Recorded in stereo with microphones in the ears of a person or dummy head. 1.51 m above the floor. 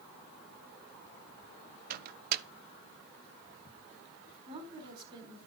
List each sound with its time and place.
1.9 s a microwave: 55° right (ahead or behind), 0.7 m
4.5 s a woman speaking: 30° right (ahead or behind), 4 m